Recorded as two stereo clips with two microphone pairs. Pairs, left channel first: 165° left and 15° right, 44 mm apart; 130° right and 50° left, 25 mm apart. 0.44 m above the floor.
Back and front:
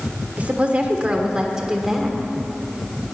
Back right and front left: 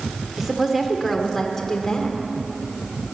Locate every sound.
0.4 s a woman speaking: 15° right, 1.5 m; by 2.2 s 95° right, 1.5 m